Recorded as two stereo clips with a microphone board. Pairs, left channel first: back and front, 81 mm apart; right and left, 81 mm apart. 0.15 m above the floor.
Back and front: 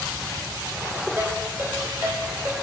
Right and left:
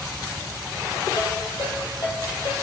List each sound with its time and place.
1.2 s a ringtone: 65° right, 3.5 m